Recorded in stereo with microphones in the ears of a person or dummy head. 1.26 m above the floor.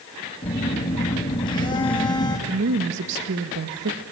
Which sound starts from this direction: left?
A phone buzzing, at 0.4 s.